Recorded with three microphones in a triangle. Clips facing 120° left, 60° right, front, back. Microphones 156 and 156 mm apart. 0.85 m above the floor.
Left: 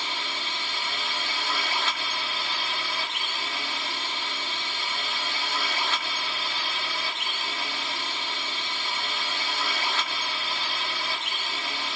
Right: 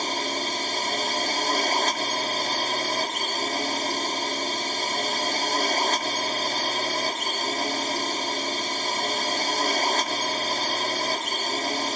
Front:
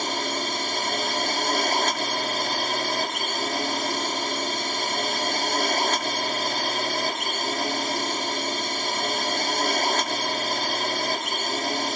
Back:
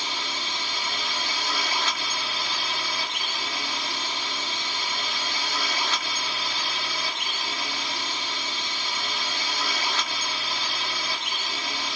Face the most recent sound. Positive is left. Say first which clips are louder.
# right 7 dB, front 7 dB
turn(degrees=-25)